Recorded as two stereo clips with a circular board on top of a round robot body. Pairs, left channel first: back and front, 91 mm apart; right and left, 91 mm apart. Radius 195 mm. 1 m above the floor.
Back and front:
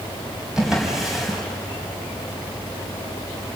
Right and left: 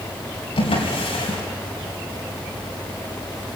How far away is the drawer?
About 4.5 m.